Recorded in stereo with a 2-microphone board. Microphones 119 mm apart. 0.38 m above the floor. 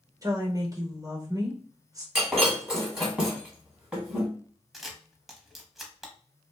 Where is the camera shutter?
Centre (ahead or behind), 0.7 m.